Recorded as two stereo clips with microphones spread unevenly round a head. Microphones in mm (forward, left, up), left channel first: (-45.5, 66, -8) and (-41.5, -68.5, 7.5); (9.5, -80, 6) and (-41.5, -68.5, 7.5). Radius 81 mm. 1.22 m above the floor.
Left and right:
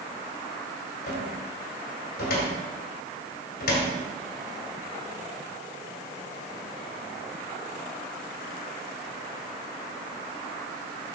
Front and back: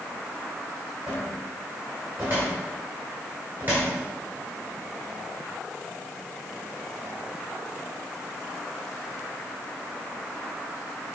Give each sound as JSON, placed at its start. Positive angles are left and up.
{"t": 1.1, "sound": "a cupboard door", "azimuth_deg": 95, "distance_m": 2.0}